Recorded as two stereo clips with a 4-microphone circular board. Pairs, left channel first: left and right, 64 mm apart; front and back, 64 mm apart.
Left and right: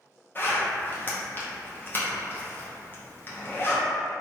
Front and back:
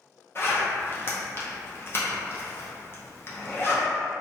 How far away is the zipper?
About 0.5 m.